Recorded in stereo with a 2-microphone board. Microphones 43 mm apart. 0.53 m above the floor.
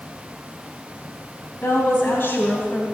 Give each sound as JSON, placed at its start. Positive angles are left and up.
{"t": 1.6, "sound": "a woman speaking", "side_deg": 50, "distance_m": 3.5}